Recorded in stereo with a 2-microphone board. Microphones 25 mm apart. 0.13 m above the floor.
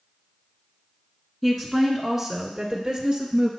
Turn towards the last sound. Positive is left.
turn(degrees=-35)  # may be behind; listen again after turning